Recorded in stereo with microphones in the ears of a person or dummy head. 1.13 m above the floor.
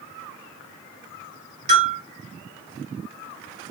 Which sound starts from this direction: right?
A bell, at 1.7 s.